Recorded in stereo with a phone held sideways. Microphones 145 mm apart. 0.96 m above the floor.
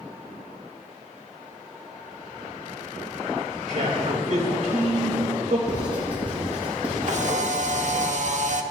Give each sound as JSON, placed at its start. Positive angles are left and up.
{"t": 3.7, "sound": "a man speaking", "side_deg": -50, "distance_m": 3.0}
{"t": 5.7, "sound": "writing", "side_deg": -10, "distance_m": 6.0}
{"t": 7.0, "sound": "a camera shutter", "side_deg": -55, "distance_m": 1.0}